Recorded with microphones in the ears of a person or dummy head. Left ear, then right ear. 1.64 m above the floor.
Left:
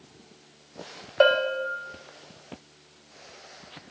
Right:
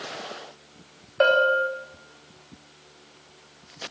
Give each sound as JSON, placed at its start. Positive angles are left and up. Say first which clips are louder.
{"t": 1.2, "sound": "a bell", "louder": "right 2 dB", "side_deg": 20, "distance_m": 1.0}